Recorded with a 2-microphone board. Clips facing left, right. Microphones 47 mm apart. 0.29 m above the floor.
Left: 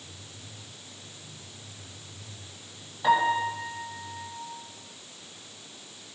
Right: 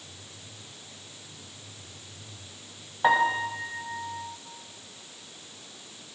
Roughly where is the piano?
Right.